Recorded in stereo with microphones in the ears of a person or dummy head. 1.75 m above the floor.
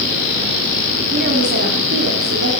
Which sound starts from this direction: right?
A woman speaking, at 1.1 s.